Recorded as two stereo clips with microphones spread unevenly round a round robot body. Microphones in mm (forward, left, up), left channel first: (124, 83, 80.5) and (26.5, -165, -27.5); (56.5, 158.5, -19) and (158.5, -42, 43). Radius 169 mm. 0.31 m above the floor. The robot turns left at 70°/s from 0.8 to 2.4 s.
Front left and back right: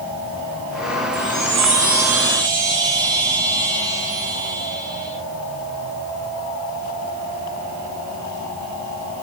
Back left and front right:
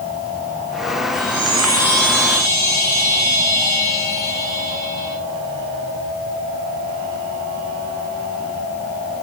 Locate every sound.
1.1 s a chime: 40° right, 9 m; by 5.1 s 130° right, 9 m